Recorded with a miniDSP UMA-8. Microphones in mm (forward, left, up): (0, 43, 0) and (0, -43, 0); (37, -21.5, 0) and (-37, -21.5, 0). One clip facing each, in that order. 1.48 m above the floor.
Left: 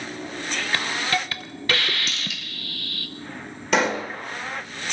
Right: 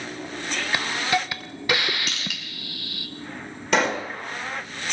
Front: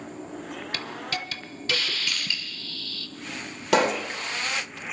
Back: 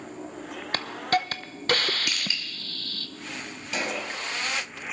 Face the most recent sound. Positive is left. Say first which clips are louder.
# left 1 dB, front 9 dB
turn(degrees=0)